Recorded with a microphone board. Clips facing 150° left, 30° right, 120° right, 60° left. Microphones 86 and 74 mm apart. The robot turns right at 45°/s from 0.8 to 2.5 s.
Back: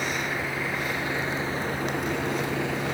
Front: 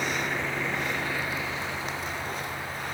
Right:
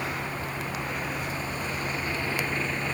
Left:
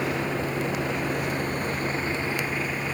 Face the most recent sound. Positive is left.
turn(degrees=140)